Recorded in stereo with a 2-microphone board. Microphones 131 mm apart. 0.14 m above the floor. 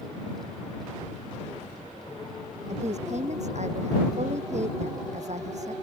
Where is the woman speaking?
60° right (ahead or behind).